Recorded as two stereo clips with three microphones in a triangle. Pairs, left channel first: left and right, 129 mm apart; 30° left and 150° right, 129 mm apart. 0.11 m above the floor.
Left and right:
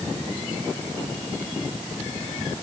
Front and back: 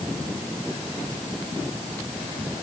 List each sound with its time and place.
Only background noise.